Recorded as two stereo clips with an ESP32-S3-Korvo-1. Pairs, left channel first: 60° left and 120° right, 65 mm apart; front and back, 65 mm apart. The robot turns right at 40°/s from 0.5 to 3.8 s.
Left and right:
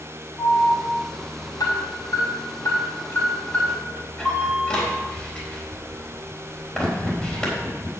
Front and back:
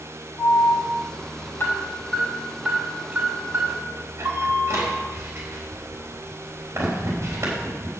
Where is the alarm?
5° left, 3.5 m; by 7.9 s 135° left, 3.5 m.